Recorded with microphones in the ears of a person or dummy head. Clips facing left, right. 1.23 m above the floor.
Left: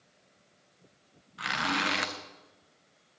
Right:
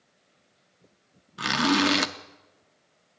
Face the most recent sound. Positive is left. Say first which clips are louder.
# right 11 dB
turn(degrees=-45)  # may be behind; listen again after turning